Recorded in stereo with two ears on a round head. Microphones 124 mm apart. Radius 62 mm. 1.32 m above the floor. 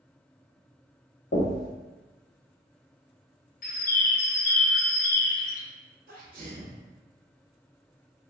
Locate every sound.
1.3 s knocking: 80° left, 1.1 m
3.6 s a bird: 65° left (ahead or behind), 0.6 m
6.1 s a sneeze: 70° right (ahead or behind), 1.1 m